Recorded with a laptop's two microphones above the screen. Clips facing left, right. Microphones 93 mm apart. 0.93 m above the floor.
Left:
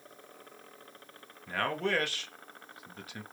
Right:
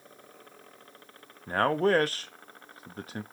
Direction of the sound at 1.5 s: 40° right (ahead or behind).